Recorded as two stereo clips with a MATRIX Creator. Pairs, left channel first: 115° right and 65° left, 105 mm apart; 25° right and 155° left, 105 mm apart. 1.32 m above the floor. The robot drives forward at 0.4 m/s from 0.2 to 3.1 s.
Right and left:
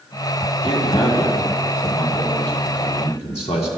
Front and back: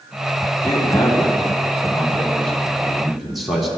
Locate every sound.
0.6 s a man speaking: 85° right, 1.8 m; by 3.7 s 115° right, 2.0 m